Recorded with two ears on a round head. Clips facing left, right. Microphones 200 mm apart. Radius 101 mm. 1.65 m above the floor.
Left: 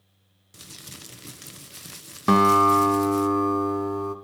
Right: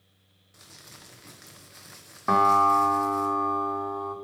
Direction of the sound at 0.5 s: 45° left (ahead or behind).